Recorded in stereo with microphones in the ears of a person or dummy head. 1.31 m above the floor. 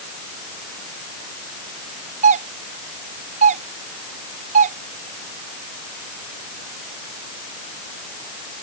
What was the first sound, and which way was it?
A doorbell, 35° right (ahead or behind).